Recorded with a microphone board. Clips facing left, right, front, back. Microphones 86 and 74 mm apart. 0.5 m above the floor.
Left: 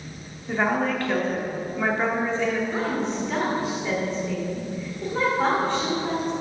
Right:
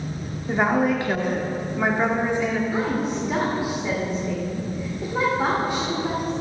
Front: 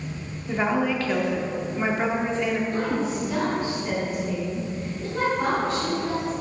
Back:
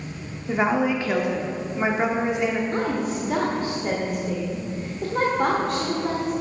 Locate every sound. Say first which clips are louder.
0.5 s a woman speaking: right 3 dB, back 2 dB; 135° right, 0.7 m
2.7 s a woman speaking: right 2 dB, back 1 dB; 165° right, 1.1 m